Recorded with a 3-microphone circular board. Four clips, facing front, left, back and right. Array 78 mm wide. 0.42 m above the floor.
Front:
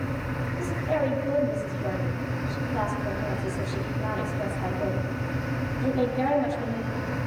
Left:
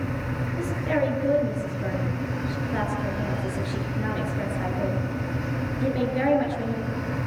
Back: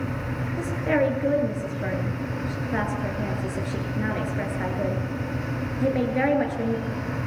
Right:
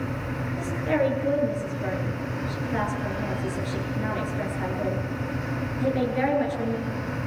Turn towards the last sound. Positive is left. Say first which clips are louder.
# right 1 dB, back 4 dB
turn(degrees=175)